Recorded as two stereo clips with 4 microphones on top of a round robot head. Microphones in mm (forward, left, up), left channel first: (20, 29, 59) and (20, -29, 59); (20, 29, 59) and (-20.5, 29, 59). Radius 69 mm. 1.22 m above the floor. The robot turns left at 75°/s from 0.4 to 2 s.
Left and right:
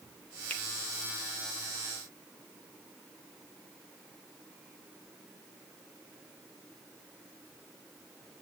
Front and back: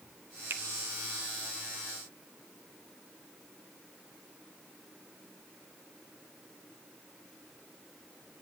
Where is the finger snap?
160° left, 0.7 m; by 0.6 s 150° left, 0.7 m.